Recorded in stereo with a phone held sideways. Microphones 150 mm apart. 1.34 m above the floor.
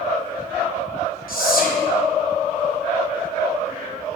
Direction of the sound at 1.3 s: 70° left (ahead or behind).